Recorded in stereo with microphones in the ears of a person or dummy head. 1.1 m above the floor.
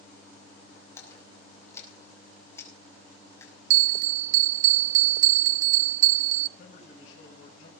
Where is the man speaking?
60° left (ahead or behind), 7 m.